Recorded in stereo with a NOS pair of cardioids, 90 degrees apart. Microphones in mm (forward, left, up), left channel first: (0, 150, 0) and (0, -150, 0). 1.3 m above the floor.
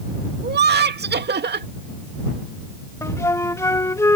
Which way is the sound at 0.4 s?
35° right.